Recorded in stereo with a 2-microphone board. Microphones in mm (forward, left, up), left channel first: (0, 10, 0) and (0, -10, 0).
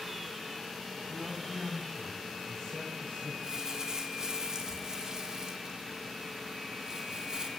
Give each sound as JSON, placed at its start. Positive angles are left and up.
{"t": 1.1, "sound": "a man speaking", "side_deg": 30, "distance_m": 3.5}
{"t": 3.4, "sound": "crumpling", "side_deg": -30, "distance_m": 1.5}